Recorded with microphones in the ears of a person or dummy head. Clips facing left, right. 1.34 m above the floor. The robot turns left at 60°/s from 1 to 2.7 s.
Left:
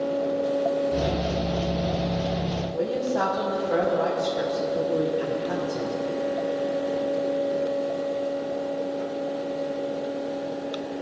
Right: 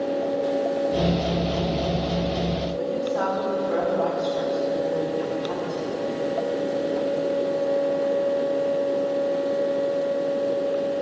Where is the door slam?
I don't hear a door slam.